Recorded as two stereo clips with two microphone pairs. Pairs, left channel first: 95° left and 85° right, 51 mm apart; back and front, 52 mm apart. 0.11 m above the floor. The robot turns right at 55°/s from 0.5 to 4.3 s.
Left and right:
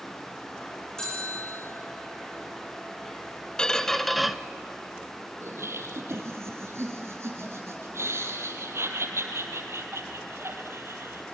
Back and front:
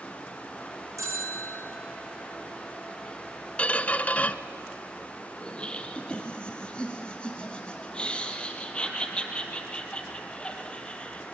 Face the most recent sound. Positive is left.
turn(degrees=-110)